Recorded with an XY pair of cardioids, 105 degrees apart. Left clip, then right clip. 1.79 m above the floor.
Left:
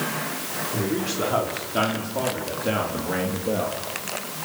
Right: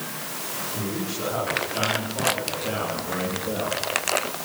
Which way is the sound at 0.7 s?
55° left.